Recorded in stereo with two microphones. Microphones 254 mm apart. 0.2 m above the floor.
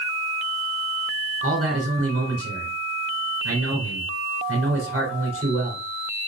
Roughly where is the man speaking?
Right.